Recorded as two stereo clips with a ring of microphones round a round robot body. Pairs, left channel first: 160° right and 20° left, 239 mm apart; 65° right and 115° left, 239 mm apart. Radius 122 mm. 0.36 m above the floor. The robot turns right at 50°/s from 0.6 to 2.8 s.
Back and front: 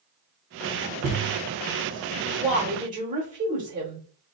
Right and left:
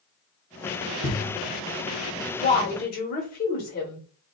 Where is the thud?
5° left, 1.5 m; by 1.4 s 25° left, 1.5 m.